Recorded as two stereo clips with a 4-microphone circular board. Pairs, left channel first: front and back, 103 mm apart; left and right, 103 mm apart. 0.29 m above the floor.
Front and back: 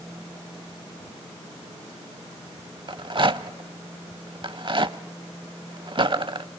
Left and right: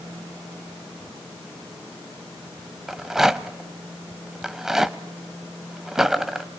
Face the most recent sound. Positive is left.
turn(degrees=-175)